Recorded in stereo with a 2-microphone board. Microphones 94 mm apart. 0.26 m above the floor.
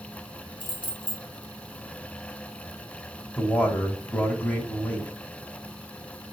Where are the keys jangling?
55° left (ahead or behind), 2 m.